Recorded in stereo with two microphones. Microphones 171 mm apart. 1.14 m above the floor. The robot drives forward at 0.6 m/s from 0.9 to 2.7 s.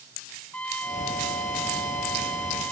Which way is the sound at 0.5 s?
10° left (ahead or behind).